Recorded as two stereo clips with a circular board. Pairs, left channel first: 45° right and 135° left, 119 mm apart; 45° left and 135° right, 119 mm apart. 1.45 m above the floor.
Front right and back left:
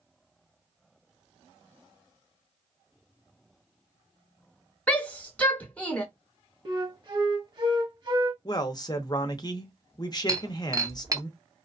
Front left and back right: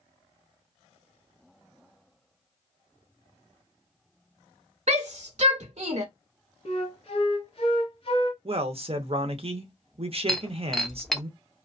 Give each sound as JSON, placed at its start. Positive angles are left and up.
{"t": 4.9, "sound": "a shout", "azimuth_deg": -125, "distance_m": 1.1}
{"t": 6.7, "sound": "a flute", "azimuth_deg": 85, "distance_m": 0.7}
{"t": 8.4, "sound": "a man speaking", "azimuth_deg": -100, "distance_m": 0.6}
{"t": 10.3, "sound": "breaking glass", "azimuth_deg": 130, "distance_m": 0.5}